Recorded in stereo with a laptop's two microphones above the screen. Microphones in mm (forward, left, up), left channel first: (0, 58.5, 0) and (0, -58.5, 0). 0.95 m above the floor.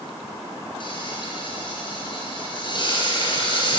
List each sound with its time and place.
0.8 s frying: 45° left (ahead or behind), 5.5 m